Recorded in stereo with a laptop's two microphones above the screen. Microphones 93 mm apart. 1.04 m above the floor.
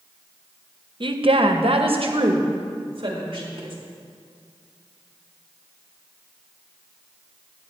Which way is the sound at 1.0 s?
55° right (ahead or behind).